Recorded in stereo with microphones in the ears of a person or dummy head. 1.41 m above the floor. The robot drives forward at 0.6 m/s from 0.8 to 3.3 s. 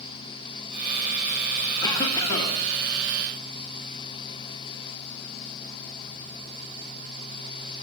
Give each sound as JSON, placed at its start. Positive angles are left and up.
{"t": 1.8, "sound": "a cough", "side_deg": 15, "distance_m": 1.3}